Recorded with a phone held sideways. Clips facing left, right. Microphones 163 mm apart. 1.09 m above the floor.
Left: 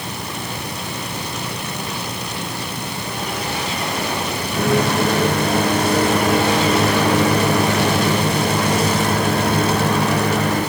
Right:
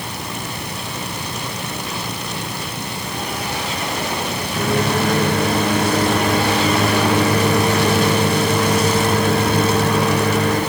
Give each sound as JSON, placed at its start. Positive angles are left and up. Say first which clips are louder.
{"t": 4.5, "sound": "a microwave", "louder": "left 2 dB", "side_deg": 45, "distance_m": 6.5}